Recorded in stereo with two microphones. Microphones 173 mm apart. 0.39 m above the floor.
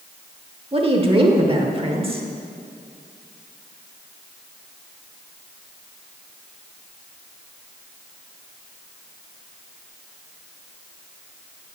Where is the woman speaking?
30° right (ahead or behind), 1.0 m.